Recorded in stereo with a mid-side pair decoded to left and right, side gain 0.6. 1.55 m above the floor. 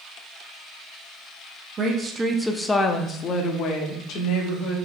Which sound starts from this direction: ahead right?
A woman speaking, at 1.8 s.